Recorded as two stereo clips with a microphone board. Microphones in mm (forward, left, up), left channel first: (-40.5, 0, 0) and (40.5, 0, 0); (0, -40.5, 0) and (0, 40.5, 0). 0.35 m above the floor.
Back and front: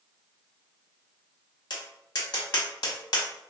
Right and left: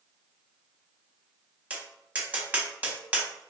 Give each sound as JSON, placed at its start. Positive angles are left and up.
{"t": 1.7, "sound": "tapping", "azimuth_deg": 160, "distance_m": 0.8}